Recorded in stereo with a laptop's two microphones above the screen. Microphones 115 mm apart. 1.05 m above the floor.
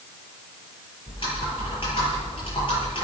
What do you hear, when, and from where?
1.1 s typing on a keyboard: 50° left (ahead or behind), 8.5 m